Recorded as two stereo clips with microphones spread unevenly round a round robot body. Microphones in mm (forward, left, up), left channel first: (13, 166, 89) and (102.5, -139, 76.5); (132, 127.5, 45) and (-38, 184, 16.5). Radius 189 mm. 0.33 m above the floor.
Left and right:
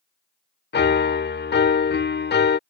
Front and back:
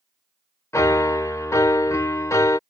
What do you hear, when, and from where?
0.7 s a piano: 60° left